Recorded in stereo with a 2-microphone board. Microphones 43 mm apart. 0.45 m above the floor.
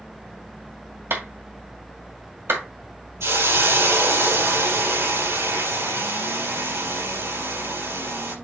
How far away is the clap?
About 2 m.